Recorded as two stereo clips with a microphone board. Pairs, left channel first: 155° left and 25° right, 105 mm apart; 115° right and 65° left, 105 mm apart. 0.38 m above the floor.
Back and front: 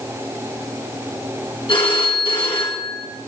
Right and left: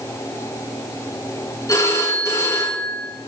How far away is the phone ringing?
About 3.5 m.